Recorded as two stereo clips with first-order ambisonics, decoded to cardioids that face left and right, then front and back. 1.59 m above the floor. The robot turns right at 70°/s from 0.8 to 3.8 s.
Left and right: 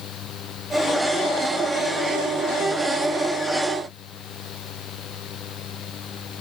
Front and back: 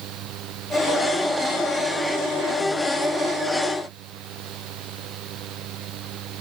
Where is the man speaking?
No man speaking in this recording.